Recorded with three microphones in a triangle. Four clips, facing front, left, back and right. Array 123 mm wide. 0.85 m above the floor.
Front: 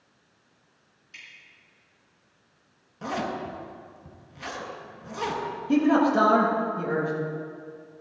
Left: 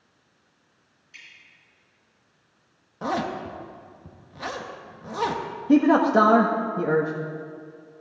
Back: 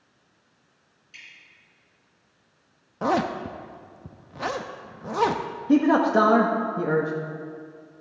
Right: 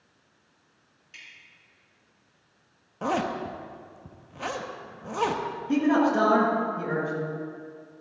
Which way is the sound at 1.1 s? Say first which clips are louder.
Even, even; 65° right.